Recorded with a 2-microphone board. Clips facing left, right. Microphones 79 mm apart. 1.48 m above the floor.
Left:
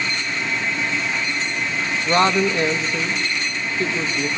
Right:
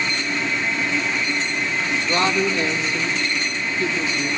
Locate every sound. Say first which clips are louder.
2.0 s a woman speaking: left 4 dB; 45° left (ahead or behind), 2.5 m